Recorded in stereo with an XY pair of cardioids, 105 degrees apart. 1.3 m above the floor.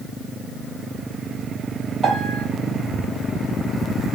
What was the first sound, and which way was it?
A piano, 45° right.